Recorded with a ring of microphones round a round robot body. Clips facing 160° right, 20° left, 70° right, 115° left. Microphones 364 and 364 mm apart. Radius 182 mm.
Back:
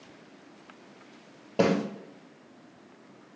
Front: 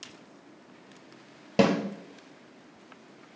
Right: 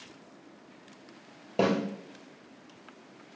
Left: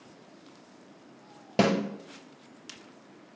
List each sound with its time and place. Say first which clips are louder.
1.6 s a snare drum: front 1 dB, left 1 dB; 65° left, 2 m